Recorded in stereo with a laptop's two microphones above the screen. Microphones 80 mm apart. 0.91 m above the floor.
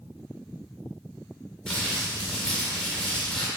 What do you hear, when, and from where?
1.7 s crumpling: 10° left (ahead or behind), 2 m